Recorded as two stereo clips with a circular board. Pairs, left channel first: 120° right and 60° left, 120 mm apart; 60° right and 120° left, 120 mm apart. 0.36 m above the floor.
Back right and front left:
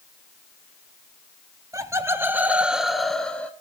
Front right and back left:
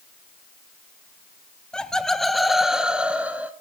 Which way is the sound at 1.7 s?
20° left.